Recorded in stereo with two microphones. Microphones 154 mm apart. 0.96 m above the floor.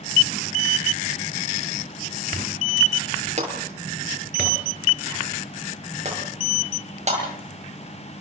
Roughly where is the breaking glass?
Right.